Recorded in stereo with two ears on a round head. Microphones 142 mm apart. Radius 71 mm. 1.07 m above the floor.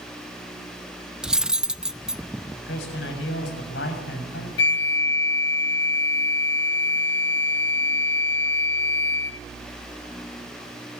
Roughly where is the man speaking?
Left.